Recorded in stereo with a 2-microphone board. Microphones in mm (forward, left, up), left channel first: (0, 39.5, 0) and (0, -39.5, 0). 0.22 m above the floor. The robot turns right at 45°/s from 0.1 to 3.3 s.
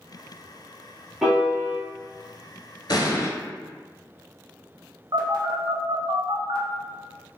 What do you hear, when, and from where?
1.2 s a piano: centre (ahead or behind), 0.8 m; by 1.8 s 30° right (ahead or behind), 0.8 m
2.9 s an explosion: 60° left (ahead or behind), 0.6 m; by 3.3 s 40° left (ahead or behind), 0.6 m
5.1 s a phone buzzing: 65° right (ahead or behind), 0.6 m